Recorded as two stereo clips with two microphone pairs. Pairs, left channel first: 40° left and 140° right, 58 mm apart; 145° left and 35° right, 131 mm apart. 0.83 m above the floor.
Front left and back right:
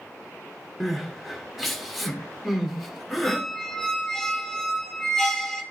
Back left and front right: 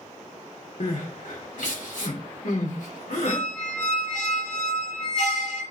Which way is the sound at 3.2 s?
120° left.